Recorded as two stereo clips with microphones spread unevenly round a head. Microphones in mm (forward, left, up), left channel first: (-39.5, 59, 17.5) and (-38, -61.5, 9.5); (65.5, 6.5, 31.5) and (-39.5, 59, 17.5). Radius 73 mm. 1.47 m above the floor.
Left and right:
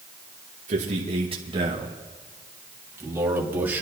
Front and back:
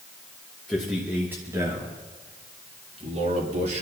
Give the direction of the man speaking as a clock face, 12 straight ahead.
4 o'clock.